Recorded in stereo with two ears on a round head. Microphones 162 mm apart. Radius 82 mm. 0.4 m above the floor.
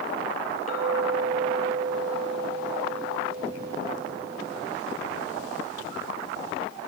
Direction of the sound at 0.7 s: 40° left (ahead or behind).